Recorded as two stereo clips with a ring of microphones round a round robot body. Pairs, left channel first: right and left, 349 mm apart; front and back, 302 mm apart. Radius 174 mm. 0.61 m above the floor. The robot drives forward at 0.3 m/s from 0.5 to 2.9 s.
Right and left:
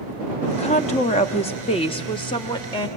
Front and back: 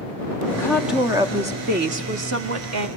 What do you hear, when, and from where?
0.5 s a woman speaking: 55° right, 0.5 m; by 2.9 s 165° right, 0.8 m